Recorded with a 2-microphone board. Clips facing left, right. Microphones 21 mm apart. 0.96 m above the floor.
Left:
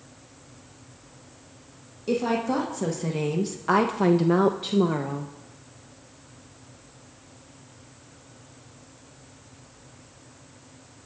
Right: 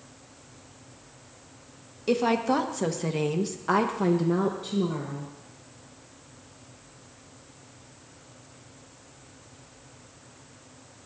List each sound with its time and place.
2.1 s a woman speaking: 35° right (ahead or behind), 1.5 m; by 5.3 s 65° left (ahead or behind), 1.0 m